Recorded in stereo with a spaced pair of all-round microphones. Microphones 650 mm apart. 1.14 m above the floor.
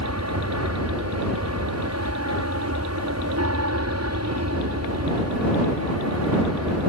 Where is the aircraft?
25° right (ahead or behind).